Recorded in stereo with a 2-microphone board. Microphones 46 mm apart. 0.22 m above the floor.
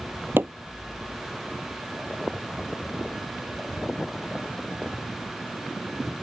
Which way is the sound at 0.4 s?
55° right (ahead or behind).